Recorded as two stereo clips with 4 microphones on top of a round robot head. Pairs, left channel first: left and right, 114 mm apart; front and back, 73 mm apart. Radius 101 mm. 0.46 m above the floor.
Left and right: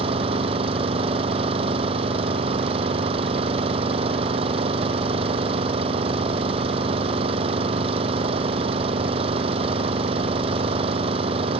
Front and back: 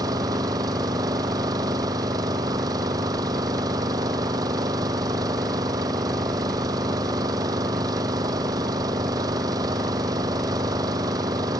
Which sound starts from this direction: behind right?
An engine running, at 0.0 s.